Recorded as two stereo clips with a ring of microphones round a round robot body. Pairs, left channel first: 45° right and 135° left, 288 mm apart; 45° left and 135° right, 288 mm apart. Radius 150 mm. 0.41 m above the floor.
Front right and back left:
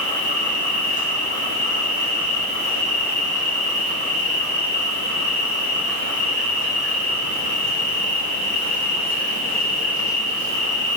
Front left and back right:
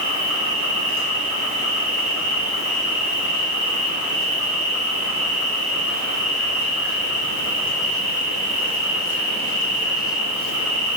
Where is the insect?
20° left, 0.9 m.